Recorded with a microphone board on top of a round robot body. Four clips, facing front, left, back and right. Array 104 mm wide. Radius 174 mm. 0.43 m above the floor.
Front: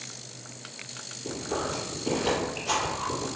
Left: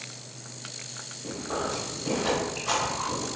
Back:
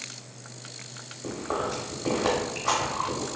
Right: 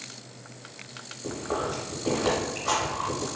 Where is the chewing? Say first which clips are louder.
Right 2 dB, back 2 dB; 170° right, 0.9 m.